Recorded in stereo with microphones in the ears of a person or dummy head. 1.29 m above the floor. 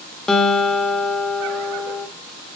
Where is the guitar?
5° left (ahead or behind), 1.8 m.